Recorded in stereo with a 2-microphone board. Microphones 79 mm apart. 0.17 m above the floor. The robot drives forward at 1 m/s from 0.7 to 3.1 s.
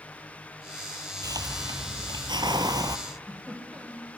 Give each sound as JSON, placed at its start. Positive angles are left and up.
{"t": 1.2, "sound": "a hiss", "side_deg": -50, "distance_m": 1.4}
{"t": 3.1, "sound": "a giggle", "side_deg": -10, "distance_m": 6.5}